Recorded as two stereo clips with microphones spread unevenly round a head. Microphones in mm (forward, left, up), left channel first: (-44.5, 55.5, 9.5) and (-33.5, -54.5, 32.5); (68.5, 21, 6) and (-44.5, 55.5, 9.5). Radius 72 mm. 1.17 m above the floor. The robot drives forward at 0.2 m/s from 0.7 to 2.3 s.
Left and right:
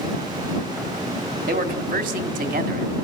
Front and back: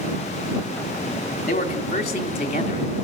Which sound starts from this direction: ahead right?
A man speaking, at 1.5 s.